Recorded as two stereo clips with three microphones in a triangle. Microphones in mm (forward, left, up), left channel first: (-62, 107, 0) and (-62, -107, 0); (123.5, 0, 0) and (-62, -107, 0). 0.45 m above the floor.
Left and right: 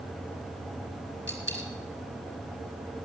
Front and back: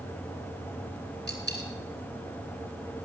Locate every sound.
1.3 s a dropped coin: 65° left, 2.5 m